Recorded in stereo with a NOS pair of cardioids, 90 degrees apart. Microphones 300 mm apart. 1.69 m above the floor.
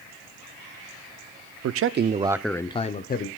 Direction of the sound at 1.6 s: 60° right.